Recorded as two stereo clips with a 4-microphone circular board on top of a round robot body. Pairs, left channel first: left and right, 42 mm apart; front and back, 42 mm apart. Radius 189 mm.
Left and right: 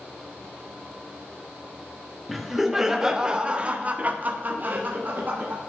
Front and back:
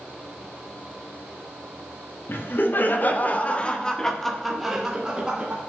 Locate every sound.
2.3 s laughter: straight ahead, 1.6 m; by 5.6 s 120° right, 1.6 m